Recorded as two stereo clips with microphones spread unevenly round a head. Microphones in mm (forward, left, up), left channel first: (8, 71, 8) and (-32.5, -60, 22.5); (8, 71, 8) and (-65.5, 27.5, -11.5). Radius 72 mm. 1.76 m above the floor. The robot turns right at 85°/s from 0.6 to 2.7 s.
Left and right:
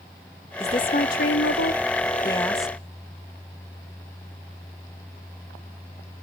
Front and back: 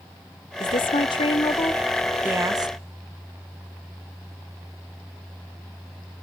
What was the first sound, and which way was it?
A woman speaking, 5° right.